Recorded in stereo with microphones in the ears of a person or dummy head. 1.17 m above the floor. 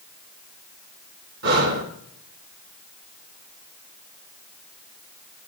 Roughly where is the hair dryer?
I don't hear a hair dryer.